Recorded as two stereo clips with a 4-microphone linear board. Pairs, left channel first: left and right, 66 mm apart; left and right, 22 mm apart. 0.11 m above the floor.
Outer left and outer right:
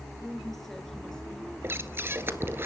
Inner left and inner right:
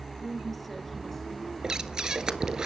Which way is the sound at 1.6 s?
35° right (ahead or behind).